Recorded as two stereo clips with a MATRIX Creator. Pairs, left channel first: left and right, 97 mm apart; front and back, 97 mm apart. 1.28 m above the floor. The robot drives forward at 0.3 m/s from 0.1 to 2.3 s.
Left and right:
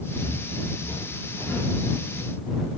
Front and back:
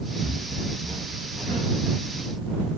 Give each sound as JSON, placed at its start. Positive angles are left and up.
{"t": 0.2, "sound": "footsteps", "azimuth_deg": 135, "distance_m": 1.8}